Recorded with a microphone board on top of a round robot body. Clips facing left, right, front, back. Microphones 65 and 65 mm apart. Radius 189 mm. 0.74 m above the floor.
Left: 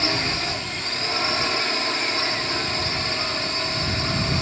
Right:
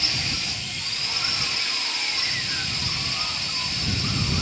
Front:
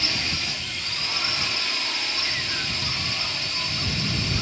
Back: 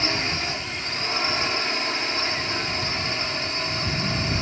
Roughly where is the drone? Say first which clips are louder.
Left 6 dB, back 3 dB; behind left.